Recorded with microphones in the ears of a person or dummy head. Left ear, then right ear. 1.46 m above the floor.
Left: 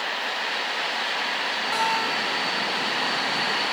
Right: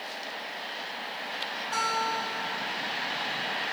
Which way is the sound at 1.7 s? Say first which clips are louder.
Left 3 dB; 15° left (ahead or behind).